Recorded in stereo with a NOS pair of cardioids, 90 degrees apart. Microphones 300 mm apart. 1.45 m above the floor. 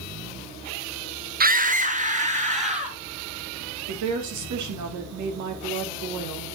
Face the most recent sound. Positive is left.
turn(degrees=-65)